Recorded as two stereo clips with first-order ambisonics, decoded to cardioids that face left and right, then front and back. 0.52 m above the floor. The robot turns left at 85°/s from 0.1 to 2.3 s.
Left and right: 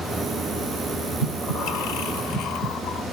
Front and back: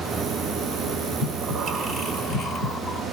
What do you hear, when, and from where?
1.2 s breathing: 160° left, 2.5 m; by 3.0 s 65° left, 2.5 m